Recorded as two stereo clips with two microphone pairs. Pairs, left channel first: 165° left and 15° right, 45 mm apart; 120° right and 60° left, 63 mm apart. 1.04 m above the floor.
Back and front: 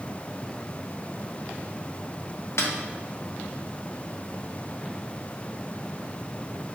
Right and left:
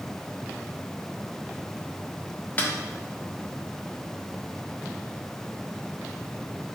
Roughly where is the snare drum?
Behind.